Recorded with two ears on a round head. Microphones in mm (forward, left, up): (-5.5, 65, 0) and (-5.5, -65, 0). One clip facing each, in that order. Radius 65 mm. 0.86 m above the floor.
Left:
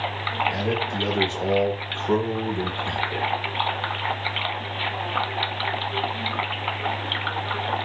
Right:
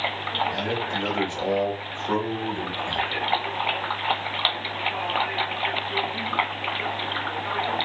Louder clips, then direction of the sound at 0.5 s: Left 2 dB; 20° left (ahead or behind).